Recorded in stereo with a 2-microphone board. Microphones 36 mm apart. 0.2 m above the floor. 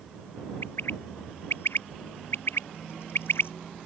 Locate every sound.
0.6 s a bird: 80° left